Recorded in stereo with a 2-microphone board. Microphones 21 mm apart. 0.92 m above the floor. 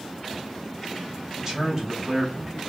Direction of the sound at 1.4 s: 25° right (ahead or behind).